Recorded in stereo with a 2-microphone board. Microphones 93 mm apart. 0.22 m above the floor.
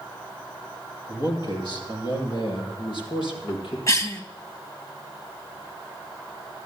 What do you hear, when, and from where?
1.1 s a man speaking: 45° left (ahead or behind), 5.5 m; by 3.8 s 65° left (ahead or behind), 6.5 m
3.9 s a cough: 35° left (ahead or behind), 1.8 m